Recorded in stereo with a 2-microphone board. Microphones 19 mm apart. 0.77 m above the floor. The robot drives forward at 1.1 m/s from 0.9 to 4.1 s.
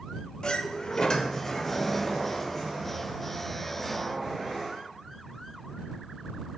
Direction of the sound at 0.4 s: 45° left (ahead or behind).